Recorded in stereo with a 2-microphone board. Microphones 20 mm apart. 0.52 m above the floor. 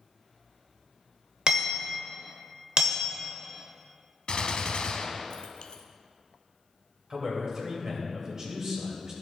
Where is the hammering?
40° right (ahead or behind), 1.2 m.